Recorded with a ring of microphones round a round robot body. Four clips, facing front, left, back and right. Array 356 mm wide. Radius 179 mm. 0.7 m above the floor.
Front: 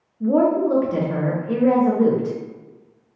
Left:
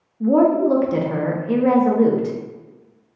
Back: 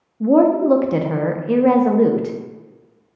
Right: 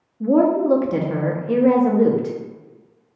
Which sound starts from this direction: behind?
A woman speaking, at 0.2 s.